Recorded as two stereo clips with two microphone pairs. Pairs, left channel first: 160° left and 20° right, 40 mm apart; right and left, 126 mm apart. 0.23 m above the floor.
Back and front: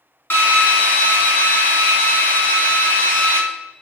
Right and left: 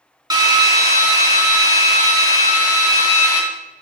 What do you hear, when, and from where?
0.3 s a drill: 140° left, 0.8 m